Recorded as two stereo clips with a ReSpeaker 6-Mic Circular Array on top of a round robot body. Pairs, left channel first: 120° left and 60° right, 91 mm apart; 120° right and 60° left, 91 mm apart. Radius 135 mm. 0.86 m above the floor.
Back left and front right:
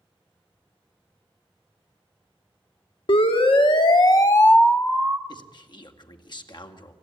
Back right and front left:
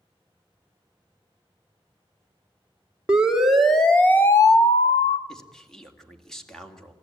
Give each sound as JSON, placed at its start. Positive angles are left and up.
{"t": 3.1, "sound": "a siren", "azimuth_deg": 140, "distance_m": 3.0}
{"t": 5.3, "sound": "a man speaking", "azimuth_deg": 155, "distance_m": 2.5}